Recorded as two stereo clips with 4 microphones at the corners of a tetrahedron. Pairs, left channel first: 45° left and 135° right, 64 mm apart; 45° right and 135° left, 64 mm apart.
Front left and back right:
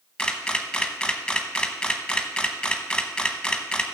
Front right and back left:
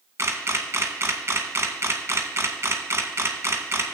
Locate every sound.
0.2 s a camera shutter: 115° left, 0.9 m